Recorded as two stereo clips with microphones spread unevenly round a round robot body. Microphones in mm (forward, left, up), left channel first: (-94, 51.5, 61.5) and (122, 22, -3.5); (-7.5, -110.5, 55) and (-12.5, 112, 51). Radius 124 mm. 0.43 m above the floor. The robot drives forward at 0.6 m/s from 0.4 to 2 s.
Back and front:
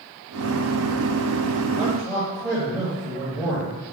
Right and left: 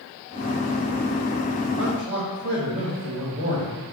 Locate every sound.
1.8 s a man speaking: 70° left, 2.5 m